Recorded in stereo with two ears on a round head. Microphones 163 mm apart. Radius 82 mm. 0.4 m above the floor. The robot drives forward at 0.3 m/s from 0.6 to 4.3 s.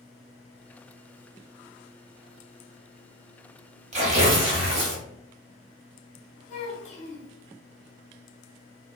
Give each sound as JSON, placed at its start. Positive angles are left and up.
{"t": 3.9, "sound": "tearing paper", "side_deg": -40, "distance_m": 0.8}
{"t": 6.5, "sound": "a child speaking", "side_deg": 35, "distance_m": 1.0}